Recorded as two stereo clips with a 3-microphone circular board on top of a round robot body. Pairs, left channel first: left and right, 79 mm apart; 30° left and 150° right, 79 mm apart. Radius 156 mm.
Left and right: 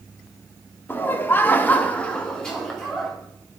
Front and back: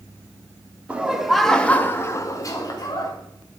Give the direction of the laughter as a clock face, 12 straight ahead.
7 o'clock.